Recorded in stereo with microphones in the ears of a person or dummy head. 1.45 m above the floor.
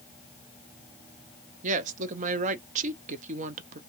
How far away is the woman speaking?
About 0.6 m.